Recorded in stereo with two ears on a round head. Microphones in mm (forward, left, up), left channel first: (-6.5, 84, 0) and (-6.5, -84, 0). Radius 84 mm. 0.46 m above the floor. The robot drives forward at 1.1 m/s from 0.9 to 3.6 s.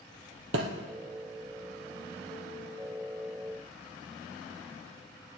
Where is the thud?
70° right (ahead or behind), 2.5 m.